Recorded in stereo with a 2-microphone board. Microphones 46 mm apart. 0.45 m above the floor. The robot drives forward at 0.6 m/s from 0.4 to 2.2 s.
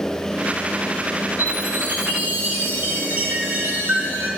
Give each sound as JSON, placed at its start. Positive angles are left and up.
{"t": 1.4, "sound": "a chime", "side_deg": -50, "distance_m": 4.0}